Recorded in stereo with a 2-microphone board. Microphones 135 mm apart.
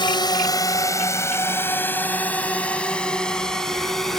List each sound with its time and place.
0.0 s a drone: 35° left (ahead or behind); by 4.2 s centre (ahead or behind)